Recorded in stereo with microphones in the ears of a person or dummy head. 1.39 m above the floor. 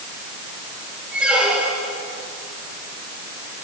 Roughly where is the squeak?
Centre.